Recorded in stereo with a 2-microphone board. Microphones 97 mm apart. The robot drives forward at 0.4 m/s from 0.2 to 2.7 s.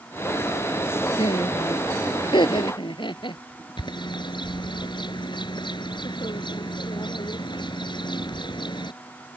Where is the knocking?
I don't hear knocking.